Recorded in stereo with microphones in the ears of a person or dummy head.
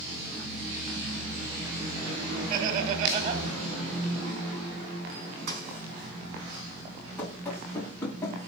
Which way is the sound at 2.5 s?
50° right (ahead or behind).